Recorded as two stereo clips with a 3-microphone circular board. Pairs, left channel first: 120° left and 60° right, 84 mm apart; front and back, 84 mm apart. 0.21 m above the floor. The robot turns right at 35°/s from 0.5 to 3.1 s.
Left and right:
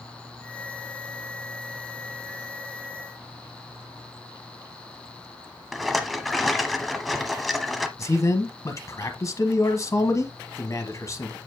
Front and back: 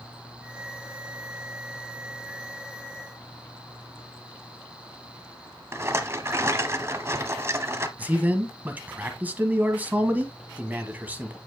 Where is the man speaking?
125° left, 1.2 m.